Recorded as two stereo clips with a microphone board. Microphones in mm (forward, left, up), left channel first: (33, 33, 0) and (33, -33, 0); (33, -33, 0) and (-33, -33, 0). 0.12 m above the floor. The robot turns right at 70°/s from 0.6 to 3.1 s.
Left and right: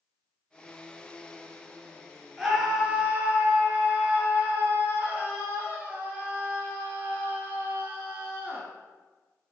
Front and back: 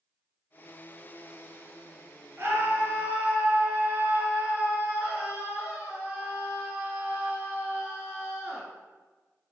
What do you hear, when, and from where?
2.4 s a scream: 170° left, 1.6 m; by 8.7 s 140° right, 1.6 m